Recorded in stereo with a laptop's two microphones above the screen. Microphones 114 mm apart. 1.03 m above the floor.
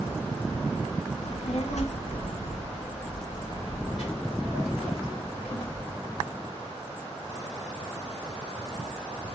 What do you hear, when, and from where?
1.2 s a child speaking: 70° left (ahead or behind), 0.5 m; by 5.9 s 55° left (ahead or behind), 3 m